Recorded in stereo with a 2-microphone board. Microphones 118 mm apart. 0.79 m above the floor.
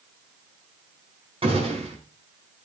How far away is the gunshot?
About 5.5 m.